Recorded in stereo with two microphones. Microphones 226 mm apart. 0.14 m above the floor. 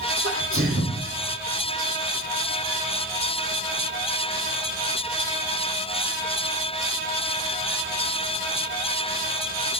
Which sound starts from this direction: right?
A sneeze, at 0.2 s.